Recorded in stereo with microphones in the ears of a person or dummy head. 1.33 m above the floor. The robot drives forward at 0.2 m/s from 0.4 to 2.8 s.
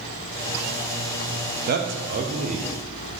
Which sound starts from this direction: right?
A man speaking, at 1.7 s.